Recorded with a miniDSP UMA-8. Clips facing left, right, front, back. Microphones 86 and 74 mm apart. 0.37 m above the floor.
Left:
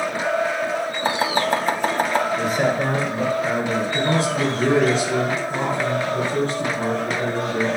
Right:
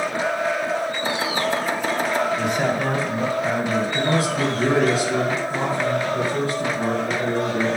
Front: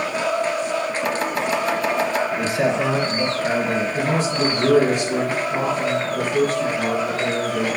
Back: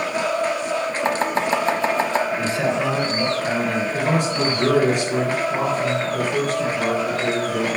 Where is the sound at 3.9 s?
155° left, 3.5 m.